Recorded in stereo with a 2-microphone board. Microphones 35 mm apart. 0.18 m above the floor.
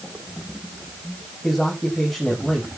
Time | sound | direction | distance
1.4 | a man speaking | 5° right (ahead or behind) | 7.5 m